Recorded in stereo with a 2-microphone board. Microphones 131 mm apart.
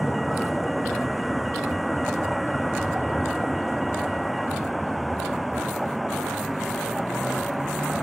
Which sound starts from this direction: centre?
A vehicle, at 0.0 s.